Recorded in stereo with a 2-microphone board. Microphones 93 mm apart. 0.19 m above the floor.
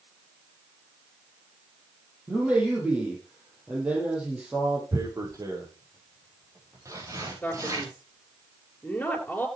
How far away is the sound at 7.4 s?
About 3.5 m.